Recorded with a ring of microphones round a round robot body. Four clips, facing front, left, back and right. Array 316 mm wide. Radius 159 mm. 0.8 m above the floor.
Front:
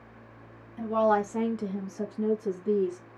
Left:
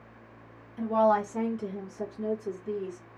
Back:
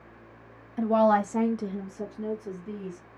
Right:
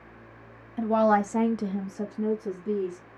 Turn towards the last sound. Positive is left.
turn(degrees=-40)